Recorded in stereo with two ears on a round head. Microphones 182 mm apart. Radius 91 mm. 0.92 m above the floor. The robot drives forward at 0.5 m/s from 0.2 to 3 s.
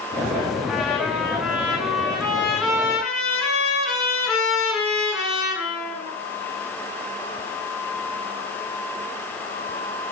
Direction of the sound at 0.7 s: Centre (ahead or behind).